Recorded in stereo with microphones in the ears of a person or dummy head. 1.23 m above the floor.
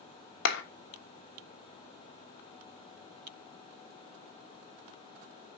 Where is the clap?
65° left (ahead or behind), 1.1 m.